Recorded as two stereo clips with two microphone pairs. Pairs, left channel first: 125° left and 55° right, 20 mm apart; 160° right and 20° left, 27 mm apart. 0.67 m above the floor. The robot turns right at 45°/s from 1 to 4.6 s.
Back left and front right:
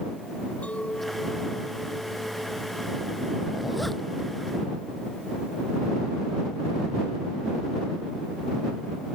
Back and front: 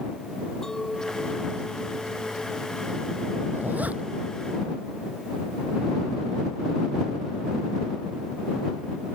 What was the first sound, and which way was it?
A clink, 130° left.